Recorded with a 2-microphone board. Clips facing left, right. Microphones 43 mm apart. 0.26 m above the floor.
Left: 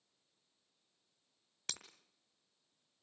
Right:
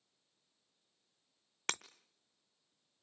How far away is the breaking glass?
About 0.9 m.